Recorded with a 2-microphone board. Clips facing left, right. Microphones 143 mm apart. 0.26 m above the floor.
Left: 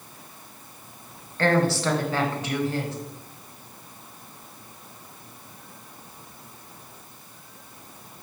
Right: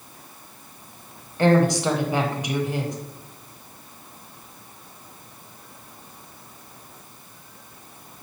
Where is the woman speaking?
15° right (ahead or behind), 1.0 m.